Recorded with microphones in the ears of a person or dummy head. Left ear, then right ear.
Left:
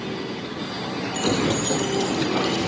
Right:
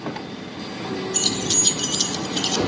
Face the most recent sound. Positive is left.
turn(degrees=-60)  # may be behind; listen again after turning